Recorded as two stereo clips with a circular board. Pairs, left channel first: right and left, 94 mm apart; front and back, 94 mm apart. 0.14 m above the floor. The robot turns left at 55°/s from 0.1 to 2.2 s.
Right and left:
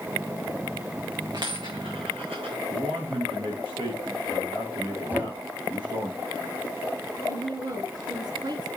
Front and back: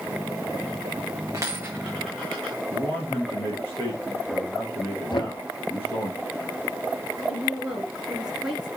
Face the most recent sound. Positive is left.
turn(degrees=100)